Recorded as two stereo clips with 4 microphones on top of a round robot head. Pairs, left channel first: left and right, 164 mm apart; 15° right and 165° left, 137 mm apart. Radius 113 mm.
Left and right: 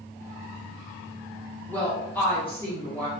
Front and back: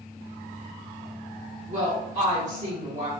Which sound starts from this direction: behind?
A woman speaking, at 1.7 s.